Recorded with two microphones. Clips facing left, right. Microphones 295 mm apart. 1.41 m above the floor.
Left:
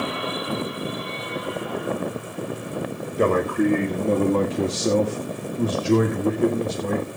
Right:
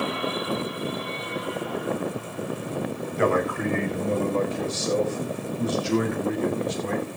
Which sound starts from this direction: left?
A man speaking, at 3.2 s.